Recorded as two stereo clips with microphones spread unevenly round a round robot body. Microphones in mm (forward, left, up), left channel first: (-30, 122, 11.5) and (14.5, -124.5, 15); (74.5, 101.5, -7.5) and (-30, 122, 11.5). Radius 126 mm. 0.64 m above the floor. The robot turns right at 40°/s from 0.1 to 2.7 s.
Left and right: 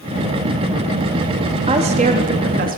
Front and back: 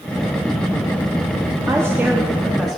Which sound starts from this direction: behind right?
A woman speaking, at 1.7 s.